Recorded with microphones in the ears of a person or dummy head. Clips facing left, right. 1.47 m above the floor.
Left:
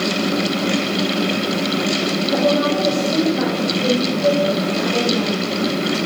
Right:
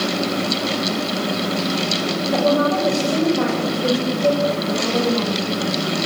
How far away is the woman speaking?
About 7.5 m.